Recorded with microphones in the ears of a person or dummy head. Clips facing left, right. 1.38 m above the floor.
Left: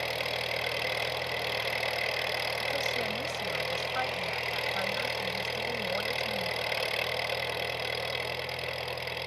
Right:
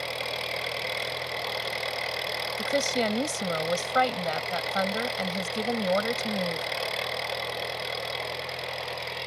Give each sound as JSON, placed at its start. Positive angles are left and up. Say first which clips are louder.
{"t": 0.0, "sound": "an engine running", "louder": "even", "side_deg": 5}
{"t": 2.6, "sound": "a woman speaking", "louder": "right 11 dB", "side_deg": -75}